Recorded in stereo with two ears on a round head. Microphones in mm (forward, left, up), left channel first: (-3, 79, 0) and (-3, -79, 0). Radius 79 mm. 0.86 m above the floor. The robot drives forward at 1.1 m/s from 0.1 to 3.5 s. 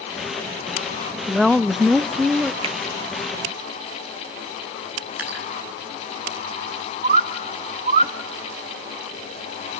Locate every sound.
1.3 s a woman speaking: centre (ahead or behind), 0.8 m
2.6 s a finger snap: 30° right (ahead or behind), 0.7 m; by 2.8 s 25° right (ahead or behind), 0.8 m
5.2 s dripping: 10° right (ahead or behind), 7 m
7.0 s a bird: 40° right (ahead or behind), 0.5 m